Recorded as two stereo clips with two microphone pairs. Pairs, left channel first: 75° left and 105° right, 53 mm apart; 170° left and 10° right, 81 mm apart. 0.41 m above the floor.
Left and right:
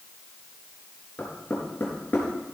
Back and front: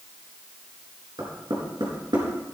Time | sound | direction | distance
1.2 | knocking | 15° left | 4.5 m